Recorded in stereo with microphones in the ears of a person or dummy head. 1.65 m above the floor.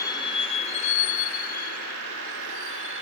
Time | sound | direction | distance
0.0 | a vehicle | 20° left (ahead or behind) | ?